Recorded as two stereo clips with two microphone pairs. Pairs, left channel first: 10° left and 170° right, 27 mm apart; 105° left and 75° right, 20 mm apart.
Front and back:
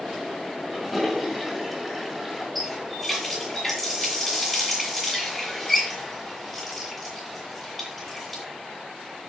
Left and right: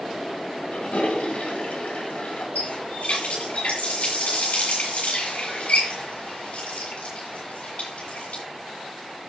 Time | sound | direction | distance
0.7 | a toilet flushing | 95° left | 4.5 m
2.5 | a running tap | 90° left | 7.5 m